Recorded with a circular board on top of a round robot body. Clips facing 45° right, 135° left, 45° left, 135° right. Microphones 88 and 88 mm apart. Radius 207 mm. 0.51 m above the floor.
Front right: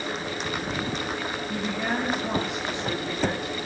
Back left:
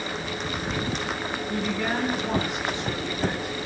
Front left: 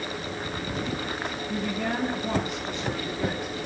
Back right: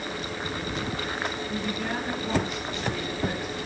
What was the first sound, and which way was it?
A woman speaking, 25° left.